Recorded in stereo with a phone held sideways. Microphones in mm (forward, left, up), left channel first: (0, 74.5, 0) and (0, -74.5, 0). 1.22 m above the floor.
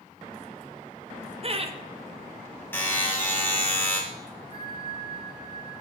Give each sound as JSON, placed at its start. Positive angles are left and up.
{"t": 1.4, "sound": "laughter", "side_deg": -40, "distance_m": 0.6}
{"t": 2.7, "sound": "a buzzer", "side_deg": 15, "distance_m": 1.7}
{"t": 4.5, "sound": "a bell", "side_deg": -40, "distance_m": 3.0}